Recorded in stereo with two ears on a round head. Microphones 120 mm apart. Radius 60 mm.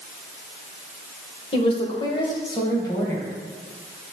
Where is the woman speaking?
45° left (ahead or behind), 1.9 m; by 3.3 s 25° left (ahead or behind), 2.5 m.